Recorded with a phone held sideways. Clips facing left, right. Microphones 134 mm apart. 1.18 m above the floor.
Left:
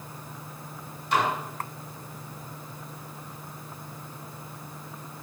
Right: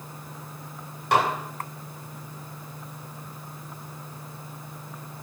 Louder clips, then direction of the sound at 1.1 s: Right 3 dB; 75° right (ahead or behind).